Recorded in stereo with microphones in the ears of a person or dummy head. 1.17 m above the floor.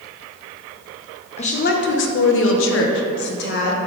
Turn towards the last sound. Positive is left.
turn(degrees=55)  # may be behind; listen again after turning